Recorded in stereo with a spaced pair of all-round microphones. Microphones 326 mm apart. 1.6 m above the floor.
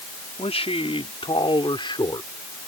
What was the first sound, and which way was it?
A man speaking, 20° left (ahead or behind).